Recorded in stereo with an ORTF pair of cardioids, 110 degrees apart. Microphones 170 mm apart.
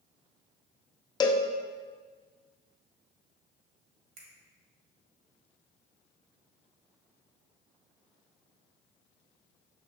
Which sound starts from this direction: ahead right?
A finger snap, at 4.2 s.